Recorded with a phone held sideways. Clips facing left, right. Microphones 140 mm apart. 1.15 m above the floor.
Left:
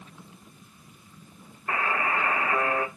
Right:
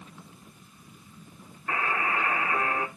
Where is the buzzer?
40° left (ahead or behind), 2 m.